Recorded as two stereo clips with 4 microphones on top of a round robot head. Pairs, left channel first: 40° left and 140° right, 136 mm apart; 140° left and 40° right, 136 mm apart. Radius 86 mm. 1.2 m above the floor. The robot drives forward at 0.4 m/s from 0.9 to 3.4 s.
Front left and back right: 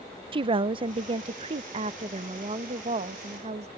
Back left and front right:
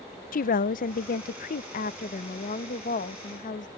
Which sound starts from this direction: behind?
A woman speaking, at 0.3 s.